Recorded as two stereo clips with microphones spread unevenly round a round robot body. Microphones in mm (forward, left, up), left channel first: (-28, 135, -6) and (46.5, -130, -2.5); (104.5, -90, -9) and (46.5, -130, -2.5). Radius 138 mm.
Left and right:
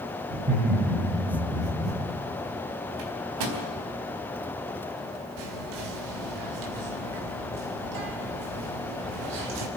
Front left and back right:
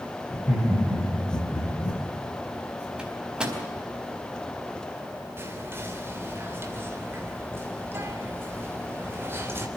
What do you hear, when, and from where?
0.3 s laughter: 30° right, 8 m; by 2.0 s 25° right, 8.5 m
3.0 s a microwave: 65° right, 4 m
5.4 s whispering: 85° right, 3 m